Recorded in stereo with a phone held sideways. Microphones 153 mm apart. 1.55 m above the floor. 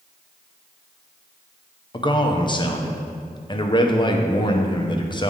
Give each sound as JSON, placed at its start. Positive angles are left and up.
{"t": 1.9, "sound": "a man speaking", "side_deg": 30, "distance_m": 0.7}